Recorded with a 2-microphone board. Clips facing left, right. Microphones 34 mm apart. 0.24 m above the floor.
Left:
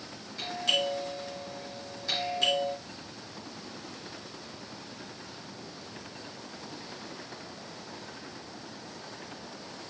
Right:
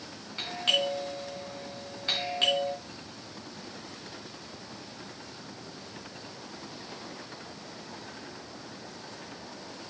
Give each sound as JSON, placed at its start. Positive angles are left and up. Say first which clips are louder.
{"t": 0.4, "sound": "a doorbell", "louder": "right 1 dB", "side_deg": -45, "distance_m": 3.0}